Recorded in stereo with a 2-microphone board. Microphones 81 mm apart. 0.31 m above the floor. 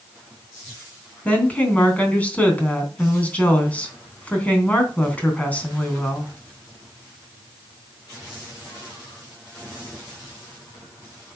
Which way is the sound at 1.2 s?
20° left (ahead or behind).